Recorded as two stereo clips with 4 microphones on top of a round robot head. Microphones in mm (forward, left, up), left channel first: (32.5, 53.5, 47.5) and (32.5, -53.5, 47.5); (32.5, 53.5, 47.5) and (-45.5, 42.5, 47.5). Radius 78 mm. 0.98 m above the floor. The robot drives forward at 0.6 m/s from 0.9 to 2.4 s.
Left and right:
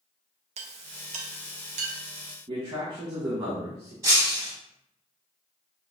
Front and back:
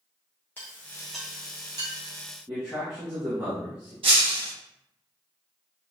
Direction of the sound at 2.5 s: 110° right.